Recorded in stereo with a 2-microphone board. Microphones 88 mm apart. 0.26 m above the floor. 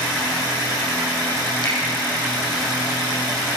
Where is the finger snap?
55° left (ahead or behind), 7 m.